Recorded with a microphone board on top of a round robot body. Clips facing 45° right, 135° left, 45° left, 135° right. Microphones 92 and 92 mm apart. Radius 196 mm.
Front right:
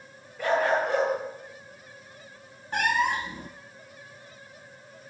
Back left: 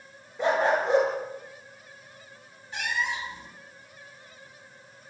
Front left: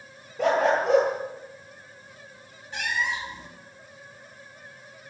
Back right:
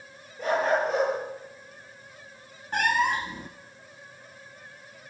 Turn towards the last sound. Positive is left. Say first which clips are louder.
# front right 6 dB, back right 5 dB
turn(degrees=-90)